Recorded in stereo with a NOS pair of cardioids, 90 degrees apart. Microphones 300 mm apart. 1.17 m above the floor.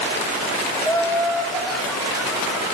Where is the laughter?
10° left, 1.1 m; by 2.7 s 5° right, 2.5 m.